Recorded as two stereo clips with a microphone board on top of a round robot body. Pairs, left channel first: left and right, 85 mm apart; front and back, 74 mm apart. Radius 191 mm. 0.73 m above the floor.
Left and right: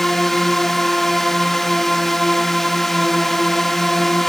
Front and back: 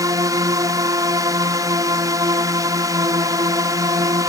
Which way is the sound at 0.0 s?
175° left.